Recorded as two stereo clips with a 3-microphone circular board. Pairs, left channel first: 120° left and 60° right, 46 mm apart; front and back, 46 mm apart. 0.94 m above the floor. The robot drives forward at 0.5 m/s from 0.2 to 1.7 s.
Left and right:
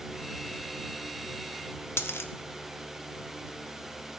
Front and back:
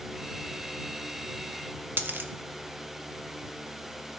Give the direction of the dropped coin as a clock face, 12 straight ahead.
7 o'clock.